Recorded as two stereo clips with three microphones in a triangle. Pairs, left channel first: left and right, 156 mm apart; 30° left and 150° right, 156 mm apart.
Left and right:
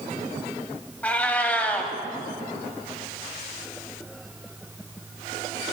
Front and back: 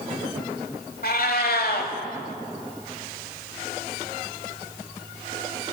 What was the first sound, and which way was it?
A cat meowing, 10° left.